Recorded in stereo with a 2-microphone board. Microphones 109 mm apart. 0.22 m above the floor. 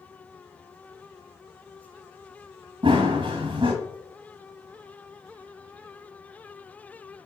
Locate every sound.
2.8 s running footsteps: 45° right (ahead or behind), 0.9 m